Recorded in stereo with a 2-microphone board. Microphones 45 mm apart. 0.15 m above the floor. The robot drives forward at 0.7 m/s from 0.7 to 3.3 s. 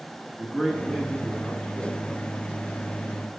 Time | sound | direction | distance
0.4 | a man speaking | 15° left (ahead or behind) | 1.7 m